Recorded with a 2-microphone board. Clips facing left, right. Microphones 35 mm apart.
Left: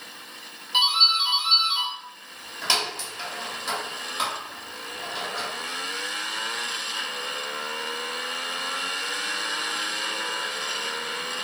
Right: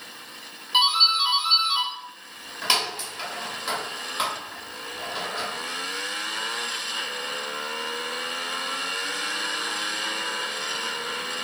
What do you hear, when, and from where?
0.7 s a doorbell: 15° right (ahead or behind), 1.3 m